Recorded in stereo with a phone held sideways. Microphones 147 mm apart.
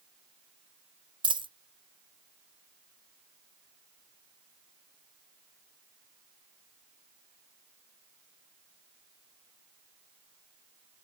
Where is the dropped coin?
35° right (ahead or behind), 0.7 m.